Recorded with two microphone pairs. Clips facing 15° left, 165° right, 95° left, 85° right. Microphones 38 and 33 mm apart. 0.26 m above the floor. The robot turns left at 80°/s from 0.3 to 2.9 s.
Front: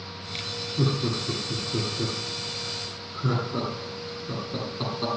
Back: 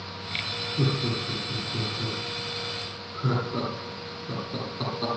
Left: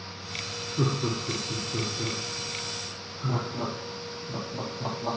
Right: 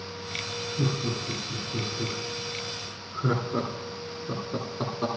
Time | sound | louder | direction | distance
0.8 | laughter | front 2 dB, left 2 dB | 95° left | 9.5 m